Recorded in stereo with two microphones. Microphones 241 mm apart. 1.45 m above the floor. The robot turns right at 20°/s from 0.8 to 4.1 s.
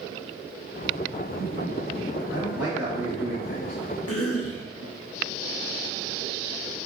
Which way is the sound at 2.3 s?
80° left.